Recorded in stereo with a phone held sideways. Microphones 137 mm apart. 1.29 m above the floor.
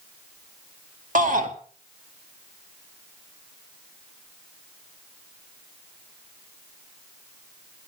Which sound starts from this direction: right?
A shout, at 1.1 s.